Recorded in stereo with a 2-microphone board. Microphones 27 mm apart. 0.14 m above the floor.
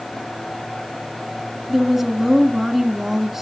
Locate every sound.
1.7 s a woman speaking: 10° right (ahead or behind), 1.2 m